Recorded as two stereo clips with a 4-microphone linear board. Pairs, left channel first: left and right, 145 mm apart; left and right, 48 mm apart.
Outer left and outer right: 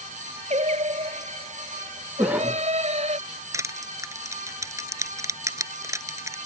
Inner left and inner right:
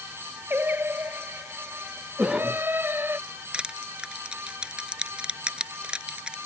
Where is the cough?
10° right (ahead or behind).